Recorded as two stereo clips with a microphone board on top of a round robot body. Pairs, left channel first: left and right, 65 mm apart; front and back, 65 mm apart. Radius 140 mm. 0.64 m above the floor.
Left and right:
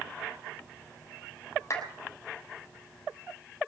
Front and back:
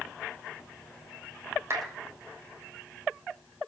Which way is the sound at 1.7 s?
130° left.